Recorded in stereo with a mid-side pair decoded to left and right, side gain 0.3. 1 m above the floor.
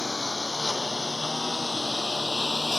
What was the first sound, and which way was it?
A lawn mower, 30° left.